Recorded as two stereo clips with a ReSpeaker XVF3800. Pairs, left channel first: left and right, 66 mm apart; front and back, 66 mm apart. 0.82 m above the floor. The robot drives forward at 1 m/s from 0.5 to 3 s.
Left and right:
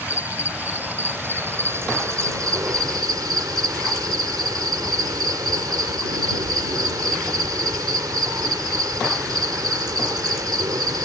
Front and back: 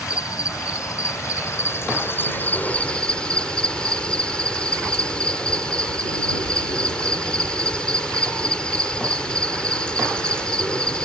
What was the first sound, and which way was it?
An insect, 30° right.